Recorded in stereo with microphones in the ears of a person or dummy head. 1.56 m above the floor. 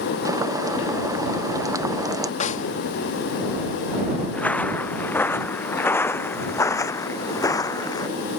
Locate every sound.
0.2 s boiling: 5° right (ahead or behind)
2.4 s a snare drum: 45° left (ahead or behind)
4.3 s footsteps: 15° left (ahead or behind); by 8.1 s 25° left (ahead or behind)